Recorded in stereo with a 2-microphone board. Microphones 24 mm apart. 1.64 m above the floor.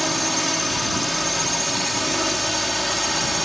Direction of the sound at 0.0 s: Centre (ahead or behind).